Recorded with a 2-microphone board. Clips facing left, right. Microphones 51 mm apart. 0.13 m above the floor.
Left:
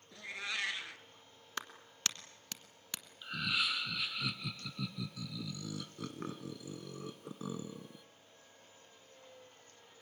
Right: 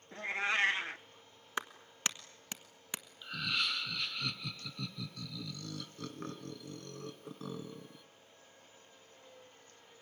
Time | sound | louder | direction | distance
0.1 | a cat meowing | right 7 dB | 40° right (ahead or behind) | 0.8 m
1.6 | a clap | right 3 dB | 20° right (ahead or behind) | 1.4 m
3.2 | laughter | left 1 dB | 5° left (ahead or behind) | 1.1 m